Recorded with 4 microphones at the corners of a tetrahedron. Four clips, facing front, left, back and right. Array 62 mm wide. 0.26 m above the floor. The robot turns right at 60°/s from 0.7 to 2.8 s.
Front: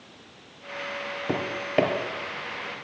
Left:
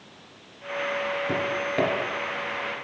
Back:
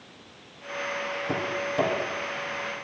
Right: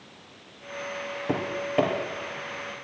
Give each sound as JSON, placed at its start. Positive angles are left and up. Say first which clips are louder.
{"t": 1.3, "sound": "tapping", "louder": "left 2 dB, front 5 dB", "azimuth_deg": -45, "distance_m": 3.0}